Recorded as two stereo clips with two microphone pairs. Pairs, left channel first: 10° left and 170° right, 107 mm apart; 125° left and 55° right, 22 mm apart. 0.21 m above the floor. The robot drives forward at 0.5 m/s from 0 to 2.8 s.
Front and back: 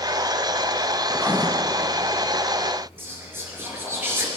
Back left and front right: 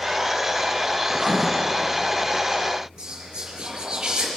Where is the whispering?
105° right, 4.5 m.